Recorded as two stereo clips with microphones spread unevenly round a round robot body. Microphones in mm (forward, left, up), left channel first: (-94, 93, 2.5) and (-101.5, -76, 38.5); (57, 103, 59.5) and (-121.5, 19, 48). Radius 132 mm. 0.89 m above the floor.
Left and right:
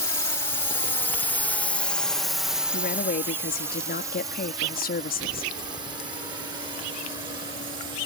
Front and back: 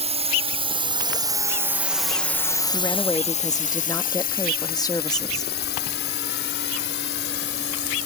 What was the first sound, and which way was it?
A drone, 155° left.